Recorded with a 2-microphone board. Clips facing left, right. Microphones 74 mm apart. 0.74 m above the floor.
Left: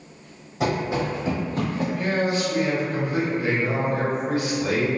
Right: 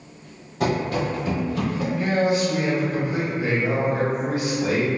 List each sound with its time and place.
0.6 s running footsteps: 5° left (ahead or behind), 1.1 m; by 1.9 s 45° left (ahead or behind), 1.0 m
1.9 s a man speaking: 20° right (ahead or behind), 1.3 m